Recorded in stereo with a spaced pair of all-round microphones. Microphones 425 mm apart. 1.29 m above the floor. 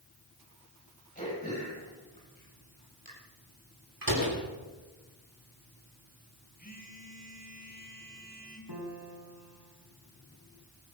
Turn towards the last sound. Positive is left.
turn(degrees=-60)  # may be behind; listen again after turning